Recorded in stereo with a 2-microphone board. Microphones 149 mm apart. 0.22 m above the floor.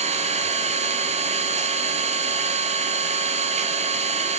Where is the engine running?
55° right (ahead or behind), 1.2 m.